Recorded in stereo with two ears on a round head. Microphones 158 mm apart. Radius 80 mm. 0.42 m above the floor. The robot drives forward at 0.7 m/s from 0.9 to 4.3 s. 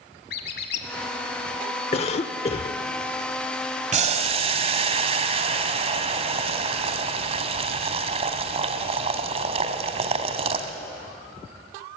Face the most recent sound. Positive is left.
turn(degrees=-35)  # may be behind; listen again after turning